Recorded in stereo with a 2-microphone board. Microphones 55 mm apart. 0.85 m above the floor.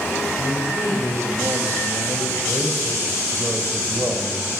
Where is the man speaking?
65° right (ahead or behind), 5.5 m; by 4.5 s 35° right (ahead or behind), 4.5 m.